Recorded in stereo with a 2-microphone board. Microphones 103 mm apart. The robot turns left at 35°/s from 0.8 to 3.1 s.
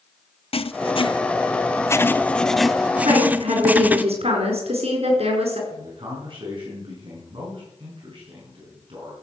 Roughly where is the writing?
Ahead left.